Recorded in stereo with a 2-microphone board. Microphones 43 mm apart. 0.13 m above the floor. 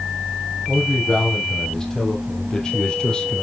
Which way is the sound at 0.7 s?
10° left (ahead or behind).